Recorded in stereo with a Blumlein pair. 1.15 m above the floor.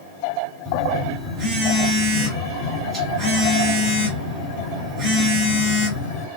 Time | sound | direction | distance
0.7 | a phone buzzing | 25° right | 1.6 m